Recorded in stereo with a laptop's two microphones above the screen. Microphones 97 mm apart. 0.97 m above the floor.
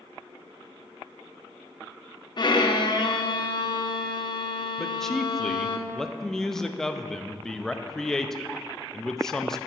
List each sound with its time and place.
2.4 s a violin: 50° left (ahead or behind), 0.8 m
4.8 s a man speaking: 5° left (ahead or behind), 0.6 m